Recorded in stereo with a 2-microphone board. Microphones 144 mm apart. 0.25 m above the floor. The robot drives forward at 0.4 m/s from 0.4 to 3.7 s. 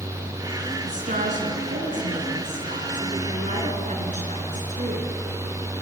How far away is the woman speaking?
About 3.5 m.